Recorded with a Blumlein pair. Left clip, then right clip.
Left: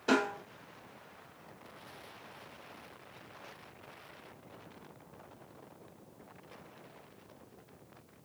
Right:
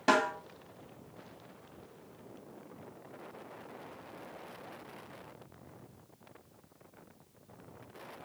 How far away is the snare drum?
About 3.5 m.